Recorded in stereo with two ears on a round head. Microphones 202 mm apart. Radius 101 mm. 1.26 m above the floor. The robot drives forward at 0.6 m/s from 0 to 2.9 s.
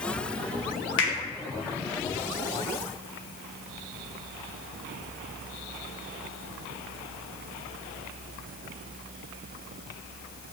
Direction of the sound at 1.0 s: 60° left (ahead or behind).